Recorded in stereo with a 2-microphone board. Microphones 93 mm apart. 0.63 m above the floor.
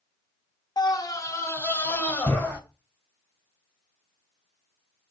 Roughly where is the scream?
Left.